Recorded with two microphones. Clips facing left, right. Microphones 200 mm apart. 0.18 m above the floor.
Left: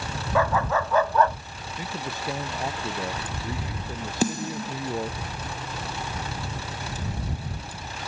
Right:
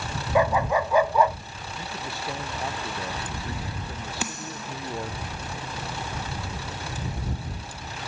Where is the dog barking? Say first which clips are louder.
Right 2 dB; 15° right (ahead or behind); by 1.4 s 10° right (ahead or behind).